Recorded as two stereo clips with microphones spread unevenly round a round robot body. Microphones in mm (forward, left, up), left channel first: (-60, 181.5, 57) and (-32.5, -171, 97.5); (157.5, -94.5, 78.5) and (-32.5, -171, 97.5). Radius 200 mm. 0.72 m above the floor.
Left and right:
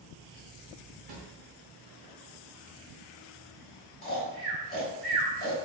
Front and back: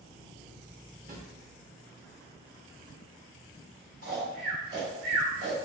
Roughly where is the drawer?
Right.